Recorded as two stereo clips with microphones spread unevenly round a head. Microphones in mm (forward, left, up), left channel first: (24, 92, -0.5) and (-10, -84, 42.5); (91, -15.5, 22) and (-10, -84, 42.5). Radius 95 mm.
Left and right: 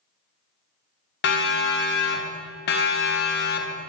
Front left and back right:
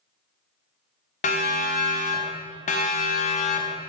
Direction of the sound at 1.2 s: 60° left.